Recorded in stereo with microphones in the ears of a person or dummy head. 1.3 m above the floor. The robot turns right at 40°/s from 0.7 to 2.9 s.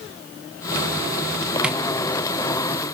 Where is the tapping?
5° right (ahead or behind), 0.6 m; by 1.8 s 10° right (ahead or behind), 0.6 m.